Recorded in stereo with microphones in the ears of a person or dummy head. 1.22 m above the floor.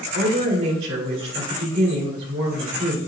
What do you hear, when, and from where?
0.1 s a woman speaking: 85° right, 4 m